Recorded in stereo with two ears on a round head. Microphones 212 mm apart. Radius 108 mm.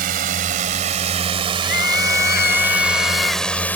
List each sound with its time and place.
0.0 s a drone: 40° right (ahead or behind); by 3.8 s 10° left (ahead or behind)
1.6 s a scream: 40° left (ahead or behind)